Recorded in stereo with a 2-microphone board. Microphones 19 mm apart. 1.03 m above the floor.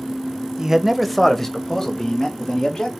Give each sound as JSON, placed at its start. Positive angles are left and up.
{"t": 0.6, "sound": "a man speaking", "side_deg": -35, "distance_m": 0.5}